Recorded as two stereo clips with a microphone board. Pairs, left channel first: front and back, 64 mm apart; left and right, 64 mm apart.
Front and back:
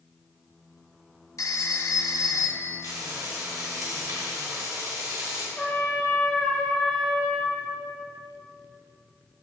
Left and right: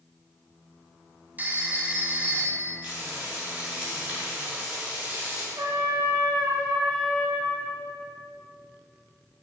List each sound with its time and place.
1.4 s a phone ringing: 25° right, 1.0 m
2.8 s frying: 160° right, 3.5 m
5.6 s a trumpet: 70° right, 2.5 m